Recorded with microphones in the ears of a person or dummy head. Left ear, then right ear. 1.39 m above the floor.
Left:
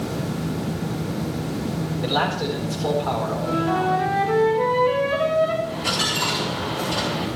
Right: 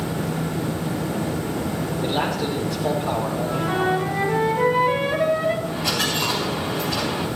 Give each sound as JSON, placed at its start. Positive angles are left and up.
{"t": 2.0, "sound": "a man speaking", "side_deg": 50, "distance_m": 5.0}
{"t": 3.4, "sound": "a flute", "side_deg": 15, "distance_m": 6.5}
{"t": 5.6, "sound": "a dropped coin", "side_deg": 10, "distance_m": 6.0}